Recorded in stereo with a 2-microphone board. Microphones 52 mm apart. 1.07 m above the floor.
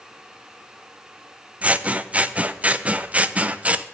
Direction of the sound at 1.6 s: 25° right (ahead or behind).